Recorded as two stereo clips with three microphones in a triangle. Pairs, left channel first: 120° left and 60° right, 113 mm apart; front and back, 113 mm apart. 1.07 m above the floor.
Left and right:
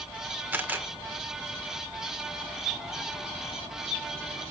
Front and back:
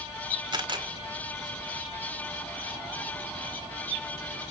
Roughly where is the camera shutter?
Behind right.